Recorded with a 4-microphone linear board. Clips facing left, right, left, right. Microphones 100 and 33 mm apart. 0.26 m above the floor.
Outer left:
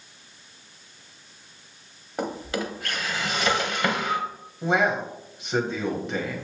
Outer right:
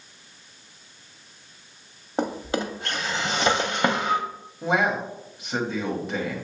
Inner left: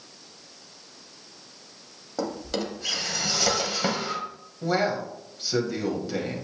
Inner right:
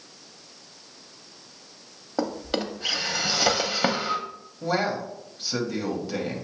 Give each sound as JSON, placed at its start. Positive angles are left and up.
{"t": 2.2, "sound": "a drawer", "side_deg": -25, "distance_m": 0.6}
{"t": 4.6, "sound": "a man speaking", "side_deg": 0, "distance_m": 1.2}